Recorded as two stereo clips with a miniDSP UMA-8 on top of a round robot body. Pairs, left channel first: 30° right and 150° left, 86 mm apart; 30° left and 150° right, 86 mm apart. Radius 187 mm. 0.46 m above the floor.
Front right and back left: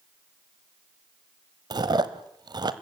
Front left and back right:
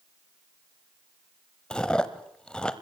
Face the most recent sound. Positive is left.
turn(degrees=110)